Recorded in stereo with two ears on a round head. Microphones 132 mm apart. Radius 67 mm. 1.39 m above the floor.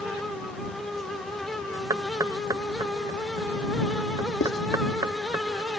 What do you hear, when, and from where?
1.9 s knocking: 25° right (ahead or behind)
4.4 s writing: 80° left